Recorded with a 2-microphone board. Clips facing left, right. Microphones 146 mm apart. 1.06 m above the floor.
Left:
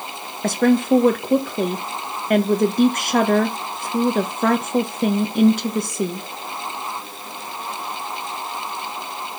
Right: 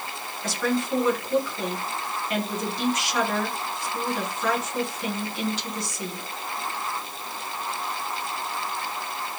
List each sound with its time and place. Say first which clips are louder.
0.4 s a woman speaking: left 10 dB; 50° left (ahead or behind), 1.1 m